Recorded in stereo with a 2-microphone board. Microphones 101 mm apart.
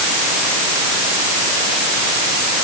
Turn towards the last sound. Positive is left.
No sound to turn to.